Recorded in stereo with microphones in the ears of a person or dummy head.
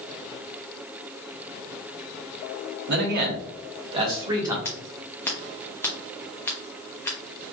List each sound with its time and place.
2.9 s a man speaking: 60° right (ahead or behind), 1.1 m; by 4.5 s 20° right (ahead or behind), 1.4 m
4.7 s scissors: 15° left (ahead or behind), 0.9 m